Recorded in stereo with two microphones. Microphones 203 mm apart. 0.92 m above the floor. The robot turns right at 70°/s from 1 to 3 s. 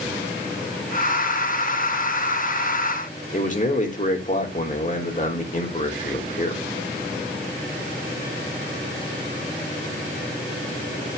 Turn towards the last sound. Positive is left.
turn(degrees=40)  # may be behind; listen again after turning